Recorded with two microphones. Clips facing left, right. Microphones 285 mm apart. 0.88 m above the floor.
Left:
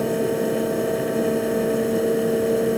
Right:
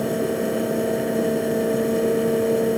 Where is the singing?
I don't hear singing.